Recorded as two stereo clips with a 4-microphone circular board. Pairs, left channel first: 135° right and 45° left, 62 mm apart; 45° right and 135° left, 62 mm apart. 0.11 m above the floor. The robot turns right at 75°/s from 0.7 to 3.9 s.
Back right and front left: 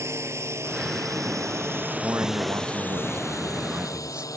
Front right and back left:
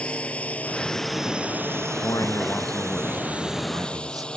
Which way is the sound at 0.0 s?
20° left.